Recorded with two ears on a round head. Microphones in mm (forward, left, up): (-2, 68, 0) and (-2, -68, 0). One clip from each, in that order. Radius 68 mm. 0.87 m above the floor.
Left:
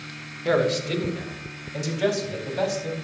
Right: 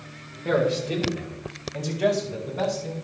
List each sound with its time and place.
0.5 s a man speaking: 80° left, 2.5 m